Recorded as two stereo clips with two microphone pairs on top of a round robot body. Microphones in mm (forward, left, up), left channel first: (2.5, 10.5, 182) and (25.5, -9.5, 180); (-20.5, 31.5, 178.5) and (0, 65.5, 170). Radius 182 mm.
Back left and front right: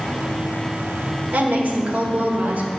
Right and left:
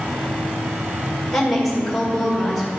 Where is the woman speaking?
30° right, 2.0 m.